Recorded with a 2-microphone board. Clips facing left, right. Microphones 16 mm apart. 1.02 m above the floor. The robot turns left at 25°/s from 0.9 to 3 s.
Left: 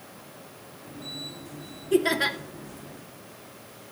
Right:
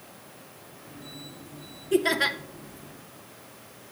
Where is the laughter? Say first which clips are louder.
Even; centre (ahead or behind), 0.7 m; by 2.4 s 5° right (ahead or behind), 0.7 m.